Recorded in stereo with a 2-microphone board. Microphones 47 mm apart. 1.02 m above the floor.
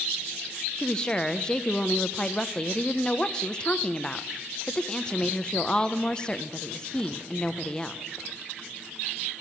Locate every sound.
0.8 s a woman speaking: 15° left (ahead or behind), 0.6 m